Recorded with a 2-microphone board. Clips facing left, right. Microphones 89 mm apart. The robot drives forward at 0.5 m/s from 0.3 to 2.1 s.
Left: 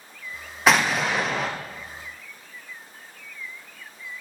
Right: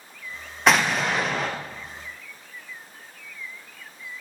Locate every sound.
0.7 s an explosion: centre (ahead or behind), 0.7 m